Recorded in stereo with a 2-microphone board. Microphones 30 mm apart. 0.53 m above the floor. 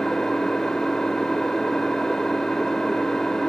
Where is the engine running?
20° left (ahead or behind), 1.1 m.